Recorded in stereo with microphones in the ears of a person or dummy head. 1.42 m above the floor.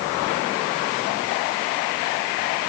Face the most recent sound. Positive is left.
No sound to turn to.